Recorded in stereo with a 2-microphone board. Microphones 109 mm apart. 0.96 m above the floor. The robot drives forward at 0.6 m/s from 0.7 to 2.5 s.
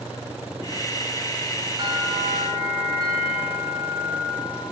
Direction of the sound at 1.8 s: 40° right (ahead or behind).